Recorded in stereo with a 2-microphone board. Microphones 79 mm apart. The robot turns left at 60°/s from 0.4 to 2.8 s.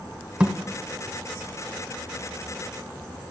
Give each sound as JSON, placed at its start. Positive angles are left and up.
{"t": 0.4, "sound": "a thud", "side_deg": -15, "distance_m": 1.2}